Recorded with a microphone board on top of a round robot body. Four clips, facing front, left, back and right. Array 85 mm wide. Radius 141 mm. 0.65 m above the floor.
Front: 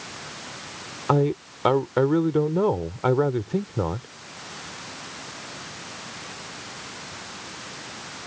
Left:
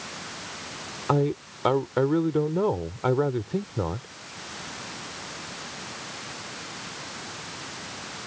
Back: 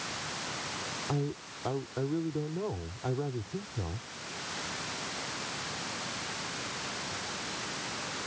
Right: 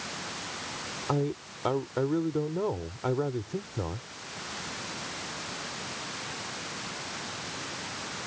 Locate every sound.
1.1 s a man speaking: 20° left